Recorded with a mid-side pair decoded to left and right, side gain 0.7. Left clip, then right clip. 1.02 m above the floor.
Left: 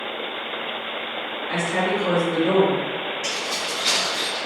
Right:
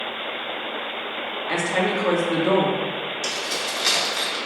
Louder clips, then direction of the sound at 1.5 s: Right 1 dB; 40° right.